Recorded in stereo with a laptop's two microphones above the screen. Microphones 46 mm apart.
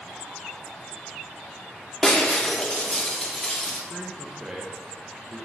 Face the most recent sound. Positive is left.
turn(degrees=-15)  # may be behind; listen again after turning